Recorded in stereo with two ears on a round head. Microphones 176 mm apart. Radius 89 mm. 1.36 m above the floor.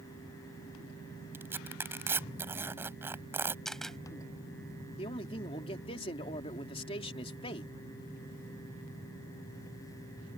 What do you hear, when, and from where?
1.3 s tearing paper: 10° right (ahead or behind)
3.6 s a camera shutter: centre (ahead or behind)
5.0 s a man speaking: 30° left (ahead or behind)